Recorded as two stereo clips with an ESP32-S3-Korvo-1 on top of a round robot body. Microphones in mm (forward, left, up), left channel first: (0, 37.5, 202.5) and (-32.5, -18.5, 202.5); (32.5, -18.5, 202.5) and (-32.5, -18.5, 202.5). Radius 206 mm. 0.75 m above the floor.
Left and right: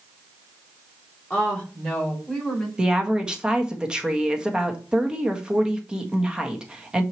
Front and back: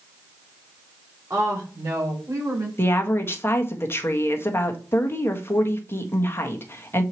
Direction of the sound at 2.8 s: 45° right.